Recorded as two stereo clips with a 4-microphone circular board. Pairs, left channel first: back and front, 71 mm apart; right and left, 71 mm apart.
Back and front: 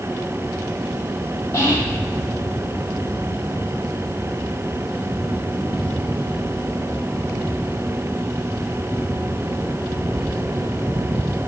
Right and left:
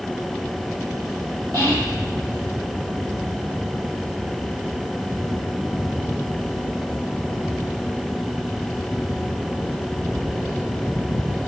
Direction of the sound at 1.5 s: 125° left.